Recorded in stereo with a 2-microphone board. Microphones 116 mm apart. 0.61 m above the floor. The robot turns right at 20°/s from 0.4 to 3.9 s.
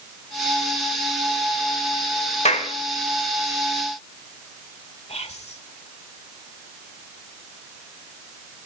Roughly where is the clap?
Left.